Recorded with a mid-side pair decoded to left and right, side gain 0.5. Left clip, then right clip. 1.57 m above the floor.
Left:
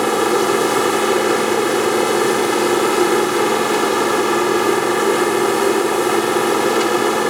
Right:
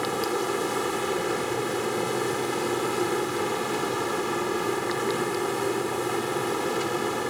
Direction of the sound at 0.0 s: 60° left.